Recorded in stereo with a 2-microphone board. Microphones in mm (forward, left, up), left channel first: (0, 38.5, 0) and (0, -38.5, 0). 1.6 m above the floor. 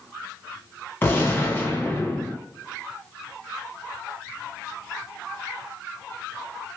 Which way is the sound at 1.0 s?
30° left (ahead or behind).